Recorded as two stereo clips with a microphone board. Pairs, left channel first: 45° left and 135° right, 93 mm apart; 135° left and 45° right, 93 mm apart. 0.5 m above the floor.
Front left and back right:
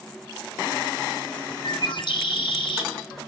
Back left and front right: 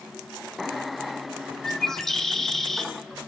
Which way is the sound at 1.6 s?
50° left.